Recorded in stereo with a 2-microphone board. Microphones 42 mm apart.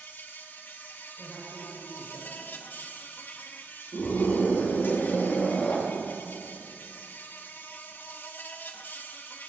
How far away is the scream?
About 3.5 m.